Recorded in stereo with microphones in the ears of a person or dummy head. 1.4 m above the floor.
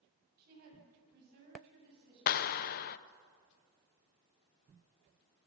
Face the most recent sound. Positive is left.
turn(degrees=50)  # may be behind; listen again after turning